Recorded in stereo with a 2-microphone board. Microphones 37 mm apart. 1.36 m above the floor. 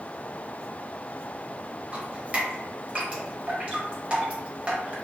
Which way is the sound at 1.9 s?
30° right (ahead or behind).